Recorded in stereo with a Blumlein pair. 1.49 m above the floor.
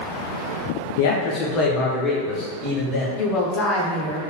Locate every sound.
1.0 s a man speaking: 55° left, 0.5 m; by 3.1 s 5° left, 1.7 m
3.2 s a woman speaking: 35° left, 1.0 m